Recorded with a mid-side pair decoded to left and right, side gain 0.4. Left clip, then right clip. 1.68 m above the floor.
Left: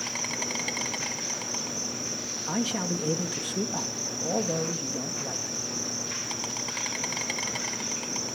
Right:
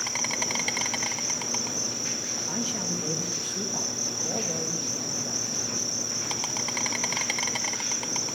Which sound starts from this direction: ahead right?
An insect, at 0.0 s.